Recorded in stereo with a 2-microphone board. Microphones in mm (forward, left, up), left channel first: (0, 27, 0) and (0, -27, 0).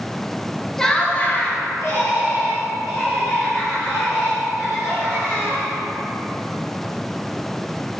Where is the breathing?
I don't hear breathing.